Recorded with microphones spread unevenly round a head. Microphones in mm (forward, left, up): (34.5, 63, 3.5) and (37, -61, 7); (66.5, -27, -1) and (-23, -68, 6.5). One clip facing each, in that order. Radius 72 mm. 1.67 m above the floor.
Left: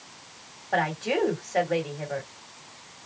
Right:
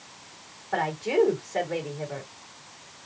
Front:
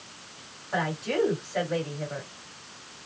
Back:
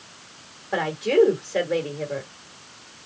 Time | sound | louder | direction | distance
0.7 | a woman speaking | right 2 dB, back 8 dB | 160° left | 3 m